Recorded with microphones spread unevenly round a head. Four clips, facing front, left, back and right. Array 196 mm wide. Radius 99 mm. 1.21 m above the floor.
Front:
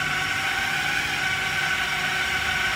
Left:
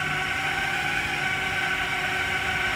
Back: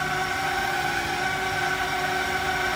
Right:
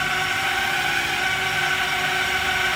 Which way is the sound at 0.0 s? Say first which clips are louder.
Right 4 dB, back 1 dB; 155° right.